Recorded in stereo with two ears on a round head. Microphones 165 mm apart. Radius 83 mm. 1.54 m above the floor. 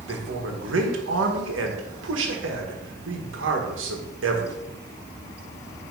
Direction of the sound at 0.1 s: 75° right (ahead or behind).